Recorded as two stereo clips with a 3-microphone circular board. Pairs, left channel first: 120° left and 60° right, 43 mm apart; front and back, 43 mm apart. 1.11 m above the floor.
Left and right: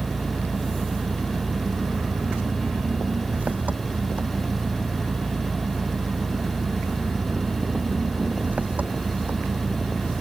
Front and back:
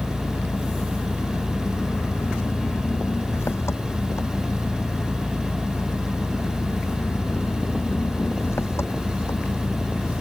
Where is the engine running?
5° right.